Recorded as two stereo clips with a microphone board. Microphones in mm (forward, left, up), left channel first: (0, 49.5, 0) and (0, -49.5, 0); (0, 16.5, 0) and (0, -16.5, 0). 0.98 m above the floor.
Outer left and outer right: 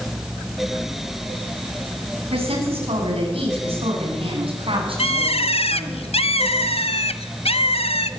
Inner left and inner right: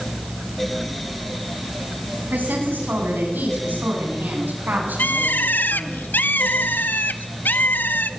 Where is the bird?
85° left, 0.9 m.